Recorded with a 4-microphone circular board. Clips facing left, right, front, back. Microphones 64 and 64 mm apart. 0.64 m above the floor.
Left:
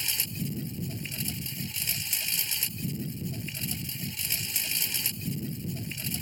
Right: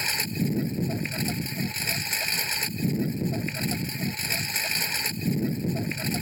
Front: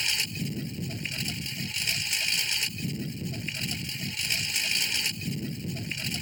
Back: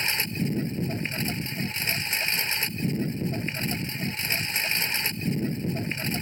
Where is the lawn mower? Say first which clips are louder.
Right 8 dB, back 4 dB; 125° right.